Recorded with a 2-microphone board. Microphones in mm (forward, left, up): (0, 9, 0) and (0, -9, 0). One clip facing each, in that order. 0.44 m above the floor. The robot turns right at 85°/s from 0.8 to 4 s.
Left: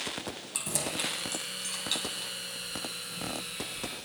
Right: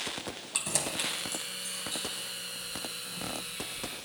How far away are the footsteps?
About 3.5 m.